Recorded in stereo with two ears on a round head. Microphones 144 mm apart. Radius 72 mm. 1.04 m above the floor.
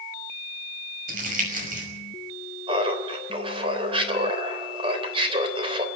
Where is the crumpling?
55° right (ahead or behind), 6 m.